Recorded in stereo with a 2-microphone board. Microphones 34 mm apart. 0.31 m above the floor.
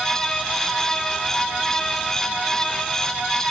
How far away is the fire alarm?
I don't hear a fire alarm.